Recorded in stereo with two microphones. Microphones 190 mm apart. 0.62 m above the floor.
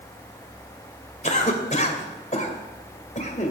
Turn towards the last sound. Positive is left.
turn(degrees=40)  # may be behind; listen again after turning